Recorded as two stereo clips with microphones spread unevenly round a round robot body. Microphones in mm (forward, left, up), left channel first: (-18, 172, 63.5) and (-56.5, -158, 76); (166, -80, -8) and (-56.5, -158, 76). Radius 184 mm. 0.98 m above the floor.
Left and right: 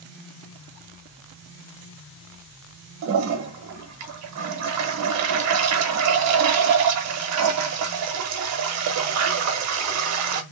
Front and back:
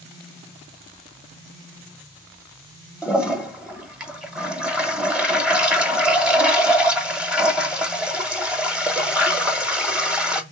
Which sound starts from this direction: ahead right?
A toilet flushing, at 3.0 s.